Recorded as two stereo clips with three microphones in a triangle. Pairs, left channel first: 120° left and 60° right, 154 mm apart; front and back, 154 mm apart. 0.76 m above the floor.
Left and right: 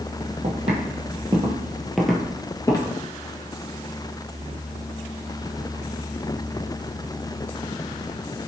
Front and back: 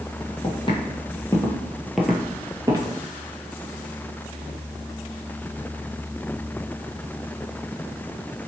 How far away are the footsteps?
About 1.1 m.